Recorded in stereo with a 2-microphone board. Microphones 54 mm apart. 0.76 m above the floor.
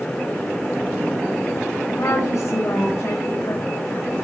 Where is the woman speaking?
80° left, 5 m; by 4.2 s 70° left (ahead or behind), 5 m.